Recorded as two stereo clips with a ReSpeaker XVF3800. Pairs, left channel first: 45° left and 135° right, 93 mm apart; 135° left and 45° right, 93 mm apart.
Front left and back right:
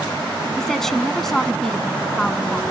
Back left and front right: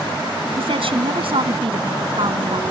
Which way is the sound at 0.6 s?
40° right.